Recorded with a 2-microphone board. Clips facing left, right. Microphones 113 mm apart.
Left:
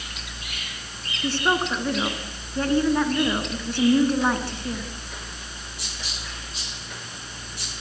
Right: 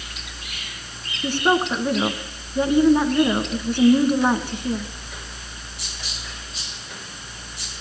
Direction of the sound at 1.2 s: 15° right (ahead or behind).